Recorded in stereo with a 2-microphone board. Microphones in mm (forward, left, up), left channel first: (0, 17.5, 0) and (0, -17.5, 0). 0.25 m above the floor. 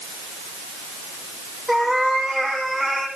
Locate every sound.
1.7 s a cat meowing: 10° left (ahead or behind), 7 m; by 3.1 s 5° left (ahead or behind), 7.5 m